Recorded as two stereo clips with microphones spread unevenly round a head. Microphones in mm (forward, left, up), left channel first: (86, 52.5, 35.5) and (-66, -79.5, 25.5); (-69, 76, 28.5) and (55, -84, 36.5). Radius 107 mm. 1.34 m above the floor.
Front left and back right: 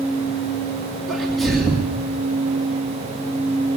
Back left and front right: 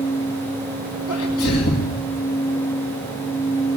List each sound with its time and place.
1.1 s a sneeze: 130° left, 2.5 m